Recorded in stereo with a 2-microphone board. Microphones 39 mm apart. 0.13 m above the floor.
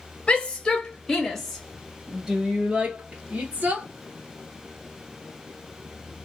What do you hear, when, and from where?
0.3 s a shout: 35° left (ahead or behind), 1.4 m; by 3.9 s 45° right (ahead or behind), 1.6 m